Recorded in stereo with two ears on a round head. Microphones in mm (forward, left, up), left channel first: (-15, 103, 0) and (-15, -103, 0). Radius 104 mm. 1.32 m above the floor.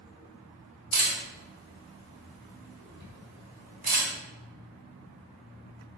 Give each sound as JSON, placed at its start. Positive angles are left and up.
{"t": 0.9, "sound": "a camera shutter", "side_deg": -40, "distance_m": 1.3}